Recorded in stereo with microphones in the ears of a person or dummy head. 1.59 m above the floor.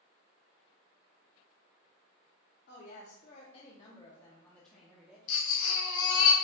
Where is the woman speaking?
60° left (ahead or behind), 0.9 m; by 5.2 s 5° right (ahead or behind), 1.1 m.